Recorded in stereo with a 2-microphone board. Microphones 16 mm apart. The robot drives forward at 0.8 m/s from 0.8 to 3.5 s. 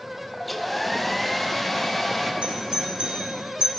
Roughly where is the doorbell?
Right.